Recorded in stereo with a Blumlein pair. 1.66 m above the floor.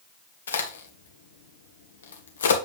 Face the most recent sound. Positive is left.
turn(degrees=65)